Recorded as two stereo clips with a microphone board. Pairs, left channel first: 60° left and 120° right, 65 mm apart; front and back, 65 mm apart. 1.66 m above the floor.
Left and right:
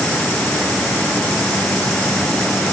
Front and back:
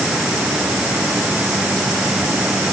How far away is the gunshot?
No gunshot in this recording.